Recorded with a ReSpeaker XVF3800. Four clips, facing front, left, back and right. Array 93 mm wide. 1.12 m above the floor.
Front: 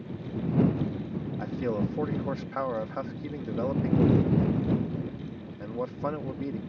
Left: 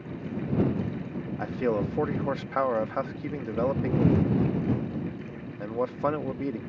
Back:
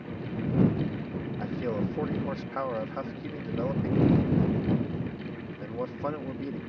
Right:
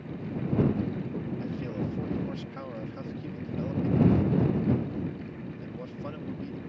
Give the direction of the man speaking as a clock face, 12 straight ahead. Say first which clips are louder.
Left 6 dB, front 1 dB; 9 o'clock.